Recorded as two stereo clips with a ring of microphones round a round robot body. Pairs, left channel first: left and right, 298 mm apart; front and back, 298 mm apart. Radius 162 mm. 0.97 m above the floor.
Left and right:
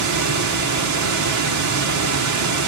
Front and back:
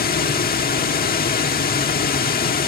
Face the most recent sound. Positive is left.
turn(degrees=-60)